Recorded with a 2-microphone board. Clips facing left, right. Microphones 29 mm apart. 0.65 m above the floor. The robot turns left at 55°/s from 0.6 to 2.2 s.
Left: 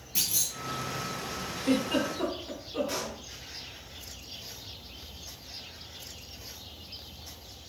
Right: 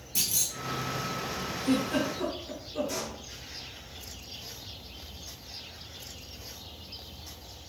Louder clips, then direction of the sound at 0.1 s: Even; 30° left (ahead or behind).